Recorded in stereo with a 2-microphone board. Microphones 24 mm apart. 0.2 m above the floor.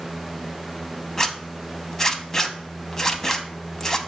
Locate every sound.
1.2 s a zipper: 25° left (ahead or behind), 0.5 m